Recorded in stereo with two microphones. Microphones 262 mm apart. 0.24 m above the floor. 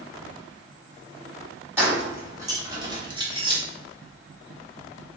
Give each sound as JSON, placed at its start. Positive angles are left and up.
{"t": 1.8, "sound": "keys jangling", "side_deg": -10, "distance_m": 1.2}